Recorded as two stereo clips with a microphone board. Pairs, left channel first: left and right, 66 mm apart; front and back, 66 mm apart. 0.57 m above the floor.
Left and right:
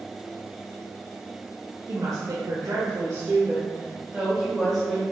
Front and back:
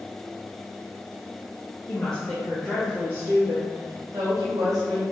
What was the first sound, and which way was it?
A woman speaking, 80° right.